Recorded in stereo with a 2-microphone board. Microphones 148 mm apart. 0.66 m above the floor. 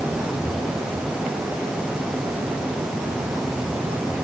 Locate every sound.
Only background noise.